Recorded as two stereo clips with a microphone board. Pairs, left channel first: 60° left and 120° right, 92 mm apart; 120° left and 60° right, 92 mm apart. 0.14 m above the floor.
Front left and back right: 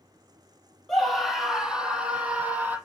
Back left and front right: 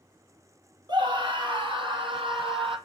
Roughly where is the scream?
Ahead right.